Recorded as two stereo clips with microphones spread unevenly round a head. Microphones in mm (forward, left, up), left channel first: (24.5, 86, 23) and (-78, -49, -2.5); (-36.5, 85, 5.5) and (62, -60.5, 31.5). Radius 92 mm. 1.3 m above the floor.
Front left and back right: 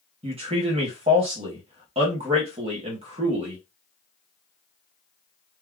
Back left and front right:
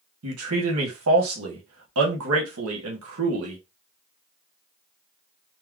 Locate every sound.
0.2 s a man speaking: 65° right, 1.0 m